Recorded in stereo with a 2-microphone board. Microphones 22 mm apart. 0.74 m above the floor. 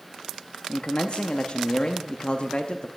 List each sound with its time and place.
0.7 s a man speaking: 50° left (ahead or behind), 0.7 m